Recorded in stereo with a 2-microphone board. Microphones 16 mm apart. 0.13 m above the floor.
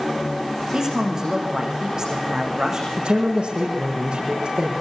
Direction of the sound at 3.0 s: 65° right (ahead or behind).